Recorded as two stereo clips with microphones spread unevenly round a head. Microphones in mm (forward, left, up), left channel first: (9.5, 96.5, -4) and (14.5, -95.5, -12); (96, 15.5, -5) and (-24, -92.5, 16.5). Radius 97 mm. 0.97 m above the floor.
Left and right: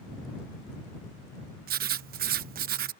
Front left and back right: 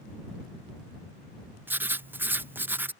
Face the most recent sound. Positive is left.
turn(degrees=-55)